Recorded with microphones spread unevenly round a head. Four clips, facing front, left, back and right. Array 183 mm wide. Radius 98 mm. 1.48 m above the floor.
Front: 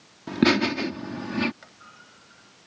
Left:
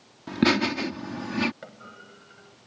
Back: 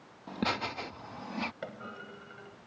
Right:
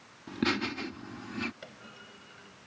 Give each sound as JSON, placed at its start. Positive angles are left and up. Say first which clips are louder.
{"t": 0.3, "sound": "laughter", "louder": "left 8 dB, front 13 dB", "azimuth_deg": 35}
{"t": 1.6, "sound": "a clunk", "louder": "left 5 dB, back 8 dB", "azimuth_deg": 160}